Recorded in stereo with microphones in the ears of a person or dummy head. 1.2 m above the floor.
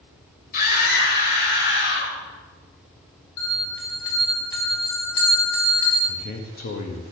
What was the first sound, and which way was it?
A scream, 65° left (ahead or behind).